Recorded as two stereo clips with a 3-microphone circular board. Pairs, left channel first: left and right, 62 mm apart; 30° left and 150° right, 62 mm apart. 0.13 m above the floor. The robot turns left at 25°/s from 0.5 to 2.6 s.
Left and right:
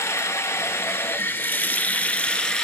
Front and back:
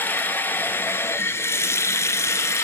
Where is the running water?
70° left, 1.0 m; by 2.6 s 15° left, 1.0 m.